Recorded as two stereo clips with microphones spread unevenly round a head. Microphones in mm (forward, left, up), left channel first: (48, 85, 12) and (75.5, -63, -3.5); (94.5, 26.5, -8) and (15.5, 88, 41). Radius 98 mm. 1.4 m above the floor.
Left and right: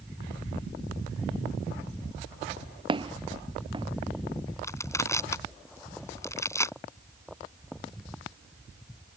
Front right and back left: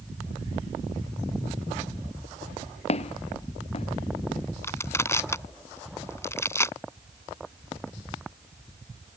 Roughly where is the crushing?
Ahead left.